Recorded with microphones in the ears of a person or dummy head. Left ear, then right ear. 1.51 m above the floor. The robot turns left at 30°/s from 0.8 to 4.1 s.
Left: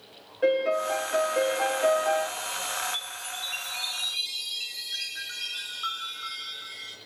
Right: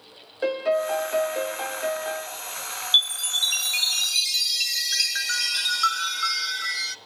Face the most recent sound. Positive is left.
turn(degrees=-115)